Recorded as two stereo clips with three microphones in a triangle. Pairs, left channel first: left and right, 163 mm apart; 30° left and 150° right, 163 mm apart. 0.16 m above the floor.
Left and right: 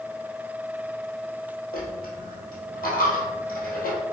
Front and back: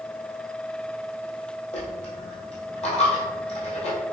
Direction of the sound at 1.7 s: 75° left.